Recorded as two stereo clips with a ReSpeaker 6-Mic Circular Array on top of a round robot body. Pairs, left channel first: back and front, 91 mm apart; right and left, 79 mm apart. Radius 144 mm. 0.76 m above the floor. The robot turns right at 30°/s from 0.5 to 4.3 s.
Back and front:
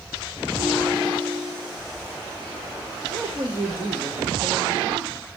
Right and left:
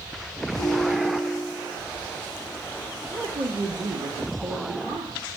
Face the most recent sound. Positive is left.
turn(degrees=75)